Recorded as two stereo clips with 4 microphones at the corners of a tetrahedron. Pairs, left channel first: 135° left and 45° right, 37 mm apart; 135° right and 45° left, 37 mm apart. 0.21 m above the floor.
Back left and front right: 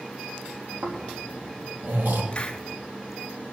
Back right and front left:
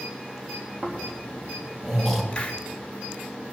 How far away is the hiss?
About 2 m.